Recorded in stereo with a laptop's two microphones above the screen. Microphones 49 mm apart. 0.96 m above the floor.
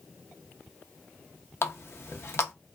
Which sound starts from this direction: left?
A running tap, at 1.6 s.